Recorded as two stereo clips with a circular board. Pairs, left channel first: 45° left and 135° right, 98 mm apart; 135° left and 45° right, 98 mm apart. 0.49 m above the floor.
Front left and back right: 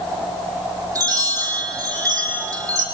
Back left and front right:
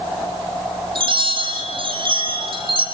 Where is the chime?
80° right, 6 m.